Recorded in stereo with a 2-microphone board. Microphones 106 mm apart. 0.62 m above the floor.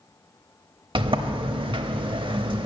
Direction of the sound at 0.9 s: 45° right (ahead or behind).